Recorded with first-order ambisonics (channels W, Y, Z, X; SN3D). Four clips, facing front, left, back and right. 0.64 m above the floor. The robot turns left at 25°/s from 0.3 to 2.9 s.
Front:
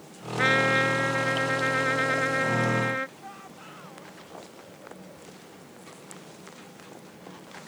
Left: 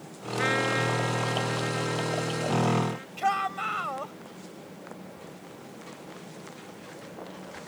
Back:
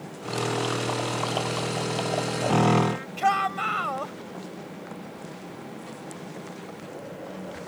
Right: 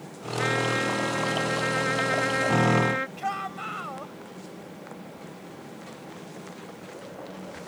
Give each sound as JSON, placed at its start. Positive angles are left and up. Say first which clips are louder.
{"t": 0.4, "sound": "a trumpet", "louder": "even, front 6 dB", "azimuth_deg": 5}
{"t": 3.2, "sound": "a shout", "louder": "left 4 dB, back 20 dB", "azimuth_deg": 165}